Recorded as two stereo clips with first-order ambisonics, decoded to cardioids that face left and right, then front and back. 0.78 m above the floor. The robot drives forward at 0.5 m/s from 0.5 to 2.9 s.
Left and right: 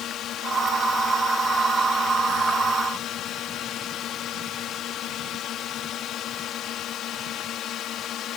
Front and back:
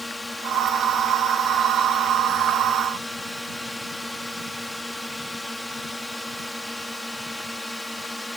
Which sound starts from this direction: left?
A drone, at 0.0 s.